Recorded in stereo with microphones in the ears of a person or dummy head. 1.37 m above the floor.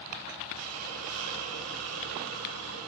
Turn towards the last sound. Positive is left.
turn(degrees=-65)  # may be behind; listen again after turning